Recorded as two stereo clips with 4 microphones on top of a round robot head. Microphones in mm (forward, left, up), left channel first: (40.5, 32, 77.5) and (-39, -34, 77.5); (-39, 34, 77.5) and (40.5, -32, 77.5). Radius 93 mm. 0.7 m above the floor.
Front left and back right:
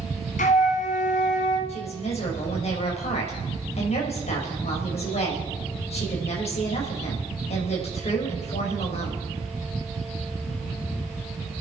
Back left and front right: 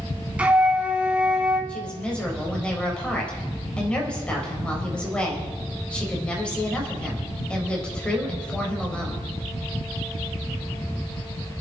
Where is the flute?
40° left, 1.4 m.